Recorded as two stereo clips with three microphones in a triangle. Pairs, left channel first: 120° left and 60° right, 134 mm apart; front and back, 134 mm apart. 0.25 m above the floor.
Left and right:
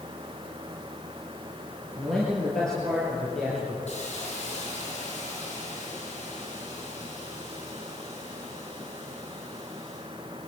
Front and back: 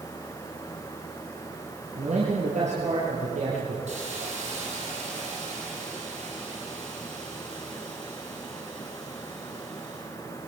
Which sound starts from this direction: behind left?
A hiss, at 3.9 s.